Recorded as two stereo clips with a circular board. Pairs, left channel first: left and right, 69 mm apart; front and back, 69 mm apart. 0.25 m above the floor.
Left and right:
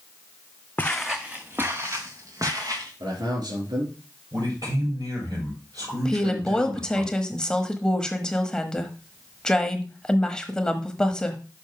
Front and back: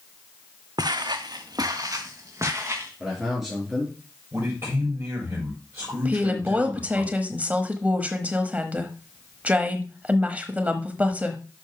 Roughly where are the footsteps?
Behind.